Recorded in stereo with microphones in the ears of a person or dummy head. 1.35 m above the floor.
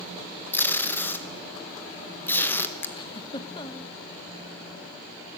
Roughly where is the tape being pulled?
Centre.